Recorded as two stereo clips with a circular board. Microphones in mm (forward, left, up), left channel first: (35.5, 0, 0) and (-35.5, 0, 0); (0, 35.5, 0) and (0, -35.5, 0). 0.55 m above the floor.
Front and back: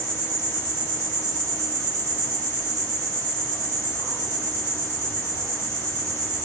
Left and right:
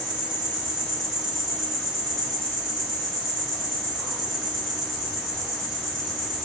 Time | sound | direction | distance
0.0 | an insect | 175° left | 1.7 m